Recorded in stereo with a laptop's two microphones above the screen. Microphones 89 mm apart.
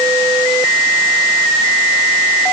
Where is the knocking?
No knocking in this recording.